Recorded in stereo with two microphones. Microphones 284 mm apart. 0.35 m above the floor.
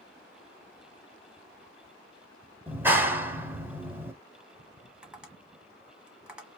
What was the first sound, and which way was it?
A clap, 5° right (ahead or behind).